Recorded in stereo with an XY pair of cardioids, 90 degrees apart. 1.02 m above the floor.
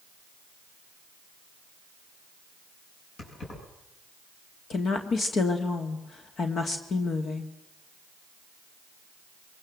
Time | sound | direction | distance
3.2 | keys jangling | 60° left | 8 m
4.7 | a woman speaking | 60° left | 2 m